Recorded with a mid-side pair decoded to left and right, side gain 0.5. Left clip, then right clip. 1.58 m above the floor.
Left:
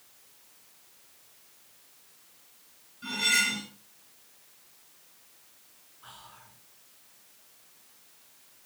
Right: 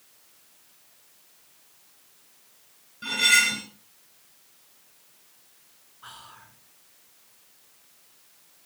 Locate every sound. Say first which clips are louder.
3.0 s cutlery clinking: right 6 dB; 55° right, 5.5 m
6.0 s whispering: right 5 dB; 45° right, 5 m